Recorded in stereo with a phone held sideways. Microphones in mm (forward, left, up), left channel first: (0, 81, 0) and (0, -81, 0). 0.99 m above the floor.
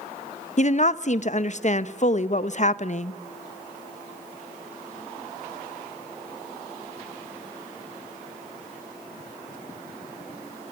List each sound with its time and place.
0.6 s a woman speaking: 50° left (ahead or behind), 0.8 m